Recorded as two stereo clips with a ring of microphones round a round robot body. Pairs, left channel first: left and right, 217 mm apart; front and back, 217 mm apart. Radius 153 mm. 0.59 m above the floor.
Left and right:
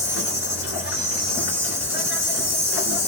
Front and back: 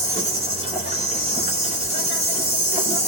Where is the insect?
120° left, 3.5 m.